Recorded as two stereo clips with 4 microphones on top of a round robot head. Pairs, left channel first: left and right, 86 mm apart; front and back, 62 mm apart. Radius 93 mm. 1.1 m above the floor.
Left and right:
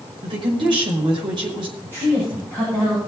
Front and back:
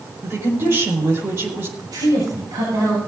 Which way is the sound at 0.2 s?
125° right.